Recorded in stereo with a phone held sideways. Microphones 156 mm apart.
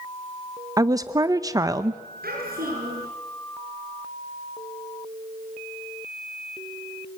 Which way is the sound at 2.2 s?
70° right (ahead or behind).